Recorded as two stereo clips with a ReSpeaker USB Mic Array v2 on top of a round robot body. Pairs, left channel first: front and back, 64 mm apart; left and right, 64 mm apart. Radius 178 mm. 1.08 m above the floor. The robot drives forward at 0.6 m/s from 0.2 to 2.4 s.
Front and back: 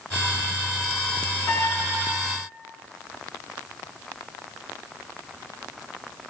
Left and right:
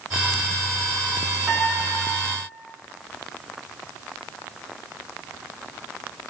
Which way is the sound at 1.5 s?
20° right.